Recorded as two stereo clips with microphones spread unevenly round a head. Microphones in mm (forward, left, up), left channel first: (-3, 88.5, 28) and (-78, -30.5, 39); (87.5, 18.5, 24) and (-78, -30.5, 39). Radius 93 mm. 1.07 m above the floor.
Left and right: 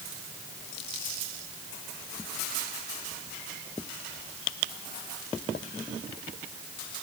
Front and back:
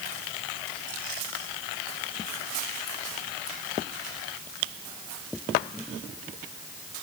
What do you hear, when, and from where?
Only background noise.